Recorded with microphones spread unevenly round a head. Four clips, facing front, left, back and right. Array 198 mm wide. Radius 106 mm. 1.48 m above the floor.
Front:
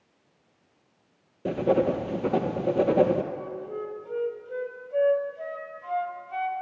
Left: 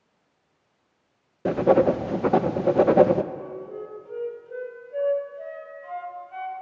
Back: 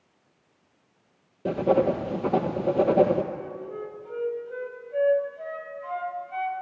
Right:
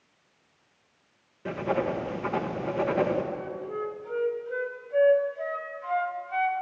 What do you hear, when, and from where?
1.4 s writing: 60° left, 0.8 m
3.3 s a flute: 15° right, 1.8 m